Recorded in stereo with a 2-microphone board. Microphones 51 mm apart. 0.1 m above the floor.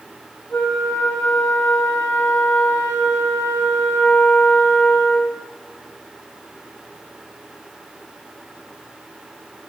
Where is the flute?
50° left (ahead or behind), 3 m.